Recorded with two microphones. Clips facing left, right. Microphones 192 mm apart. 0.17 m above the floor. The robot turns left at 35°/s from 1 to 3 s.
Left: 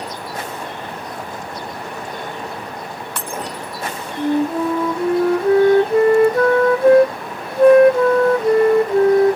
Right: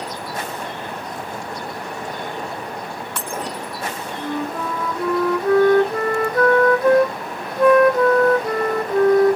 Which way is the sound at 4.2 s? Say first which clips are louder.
Left 9 dB; 25° left (ahead or behind).